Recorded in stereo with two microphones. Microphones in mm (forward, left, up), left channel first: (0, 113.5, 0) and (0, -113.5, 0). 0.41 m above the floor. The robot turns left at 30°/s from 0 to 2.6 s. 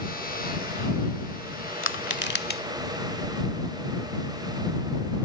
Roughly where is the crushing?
Left.